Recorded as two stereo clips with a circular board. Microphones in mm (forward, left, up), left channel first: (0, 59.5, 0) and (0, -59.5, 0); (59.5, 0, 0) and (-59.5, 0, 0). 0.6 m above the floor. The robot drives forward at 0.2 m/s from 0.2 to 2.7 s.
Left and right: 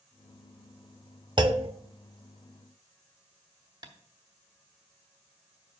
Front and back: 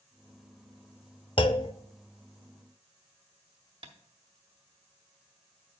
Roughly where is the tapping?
Behind right.